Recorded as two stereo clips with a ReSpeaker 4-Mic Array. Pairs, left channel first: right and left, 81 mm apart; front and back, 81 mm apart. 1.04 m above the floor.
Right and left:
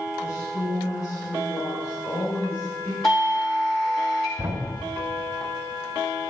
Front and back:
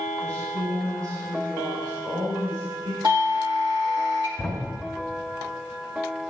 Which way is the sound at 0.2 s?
140° right.